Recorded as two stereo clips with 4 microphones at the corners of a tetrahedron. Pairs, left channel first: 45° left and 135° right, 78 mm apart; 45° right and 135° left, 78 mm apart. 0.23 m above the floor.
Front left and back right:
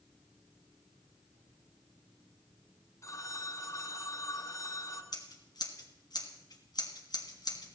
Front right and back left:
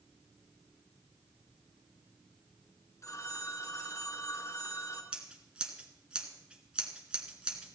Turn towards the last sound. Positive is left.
turn(degrees=60)